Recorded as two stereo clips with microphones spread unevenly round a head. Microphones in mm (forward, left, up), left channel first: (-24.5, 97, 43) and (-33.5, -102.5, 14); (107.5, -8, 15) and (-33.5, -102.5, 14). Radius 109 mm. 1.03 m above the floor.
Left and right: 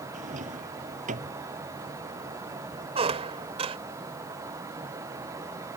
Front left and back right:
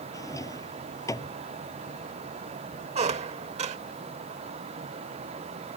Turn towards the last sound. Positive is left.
turn(degrees=-150)